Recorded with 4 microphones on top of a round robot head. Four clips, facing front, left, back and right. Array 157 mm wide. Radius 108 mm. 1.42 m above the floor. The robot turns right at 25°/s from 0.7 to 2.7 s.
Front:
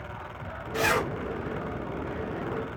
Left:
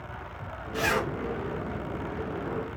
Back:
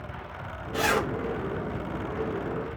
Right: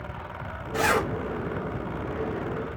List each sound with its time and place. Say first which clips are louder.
0.7 s a zipper: right 4 dB, even; 110° right, 0.8 m; by 1.1 s 105° right, 0.8 m